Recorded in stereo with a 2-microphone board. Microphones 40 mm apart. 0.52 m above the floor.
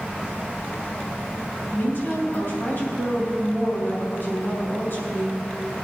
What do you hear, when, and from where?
1.7 s a woman speaking: 55° left (ahead or behind), 4.5 m